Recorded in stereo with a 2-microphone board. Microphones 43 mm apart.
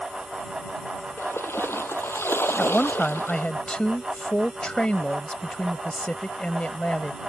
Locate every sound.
1.2 s a splash: 80° left
2.6 s a woman speaking: 25° left (ahead or behind)